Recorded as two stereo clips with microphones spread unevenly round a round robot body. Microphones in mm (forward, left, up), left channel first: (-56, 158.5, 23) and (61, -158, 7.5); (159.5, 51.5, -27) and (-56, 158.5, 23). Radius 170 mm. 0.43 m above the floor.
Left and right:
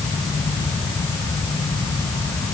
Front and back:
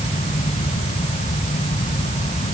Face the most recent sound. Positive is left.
No sound to turn to.